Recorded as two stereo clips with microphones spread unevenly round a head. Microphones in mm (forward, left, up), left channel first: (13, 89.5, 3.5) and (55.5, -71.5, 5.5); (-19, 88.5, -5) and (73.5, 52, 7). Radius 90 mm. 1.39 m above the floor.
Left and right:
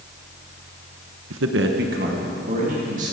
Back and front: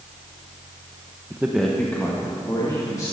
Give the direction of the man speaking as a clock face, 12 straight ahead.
3 o'clock.